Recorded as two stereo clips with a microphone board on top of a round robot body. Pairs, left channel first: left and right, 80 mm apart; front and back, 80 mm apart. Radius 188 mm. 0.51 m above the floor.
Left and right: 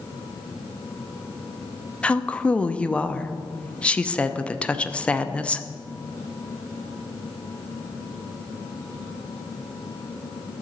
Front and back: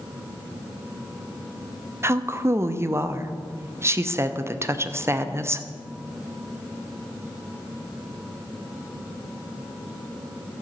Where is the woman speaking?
155° left, 1.0 m.